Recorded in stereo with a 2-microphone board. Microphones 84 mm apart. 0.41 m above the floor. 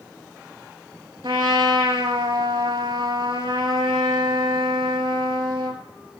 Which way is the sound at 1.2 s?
80° right.